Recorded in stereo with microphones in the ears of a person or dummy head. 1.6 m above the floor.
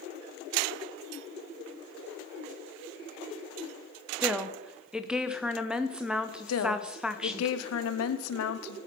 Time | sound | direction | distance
4.2 | a woman speaking | 5° right (ahead or behind) | 0.7 m
6.5 | a woman speaking | 85° left | 1.0 m